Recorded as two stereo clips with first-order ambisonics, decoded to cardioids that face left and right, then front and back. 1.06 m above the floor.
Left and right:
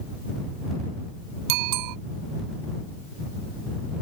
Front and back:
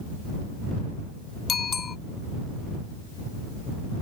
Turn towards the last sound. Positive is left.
turn(degrees=-70)